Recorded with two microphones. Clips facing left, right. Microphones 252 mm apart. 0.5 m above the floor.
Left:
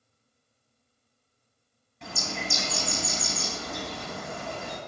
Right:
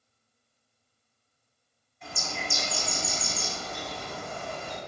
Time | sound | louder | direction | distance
2.0 | a bird | left 3 dB | 75° left (ahead or behind) | 0.7 m